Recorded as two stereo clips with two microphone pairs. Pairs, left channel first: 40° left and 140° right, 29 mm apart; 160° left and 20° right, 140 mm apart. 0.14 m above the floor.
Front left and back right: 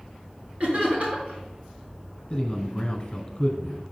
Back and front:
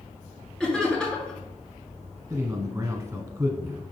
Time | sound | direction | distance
0.6 | laughter | 120° right | 2.5 m
2.3 | a man speaking | 10° left | 1.2 m